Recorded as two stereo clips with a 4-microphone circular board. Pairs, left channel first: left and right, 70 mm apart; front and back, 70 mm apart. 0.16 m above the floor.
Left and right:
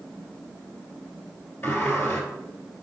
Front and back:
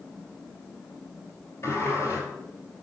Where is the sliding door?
40° left, 2.5 m.